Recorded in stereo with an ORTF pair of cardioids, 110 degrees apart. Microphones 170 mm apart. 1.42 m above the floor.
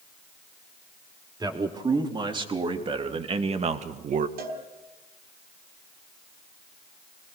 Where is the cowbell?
70° right, 4.5 m.